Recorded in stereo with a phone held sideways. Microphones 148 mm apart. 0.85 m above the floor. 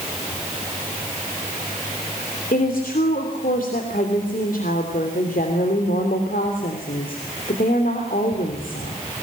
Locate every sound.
2.5 s a woman speaking: 75° left (ahead or behind), 3 m